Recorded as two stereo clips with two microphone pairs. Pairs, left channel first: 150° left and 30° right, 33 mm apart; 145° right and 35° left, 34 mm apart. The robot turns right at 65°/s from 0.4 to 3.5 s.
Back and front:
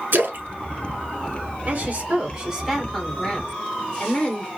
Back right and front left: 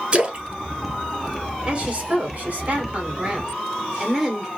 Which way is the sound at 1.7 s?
10° right.